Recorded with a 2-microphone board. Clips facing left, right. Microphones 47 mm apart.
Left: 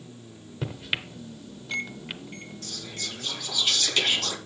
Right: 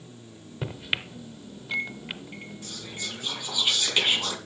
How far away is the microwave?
About 0.8 m.